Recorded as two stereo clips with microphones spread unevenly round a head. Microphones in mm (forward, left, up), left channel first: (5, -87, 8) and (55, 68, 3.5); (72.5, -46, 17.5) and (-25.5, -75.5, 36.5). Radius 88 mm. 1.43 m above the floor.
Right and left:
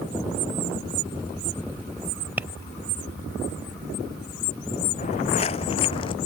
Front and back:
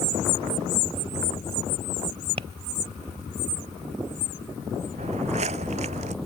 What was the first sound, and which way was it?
Tapping, 155° left.